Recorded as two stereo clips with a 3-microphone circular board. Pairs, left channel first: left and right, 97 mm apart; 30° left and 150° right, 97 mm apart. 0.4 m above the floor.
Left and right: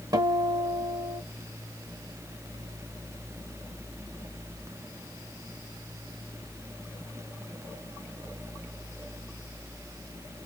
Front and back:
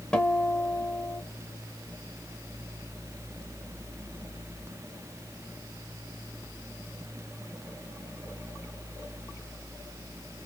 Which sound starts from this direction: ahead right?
A guitar, at 0.1 s.